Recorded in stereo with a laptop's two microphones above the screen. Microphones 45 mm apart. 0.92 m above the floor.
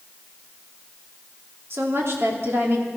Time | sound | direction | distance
1.7 | a woman speaking | 65° right (ahead or behind) | 2.5 m